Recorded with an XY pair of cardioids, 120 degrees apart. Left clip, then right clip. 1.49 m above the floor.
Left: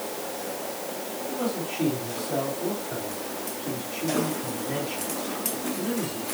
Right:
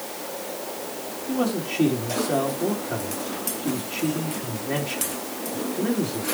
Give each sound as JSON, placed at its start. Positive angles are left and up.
{"t": 1.3, "sound": "a man speaking", "azimuth_deg": -50, "distance_m": 3.5}